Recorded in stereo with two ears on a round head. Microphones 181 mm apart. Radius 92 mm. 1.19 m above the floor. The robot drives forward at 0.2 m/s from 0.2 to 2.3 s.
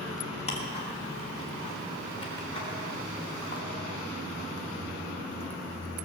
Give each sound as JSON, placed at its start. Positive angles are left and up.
{"t": 0.5, "sound": "ticking", "side_deg": 35, "distance_m": 2.5}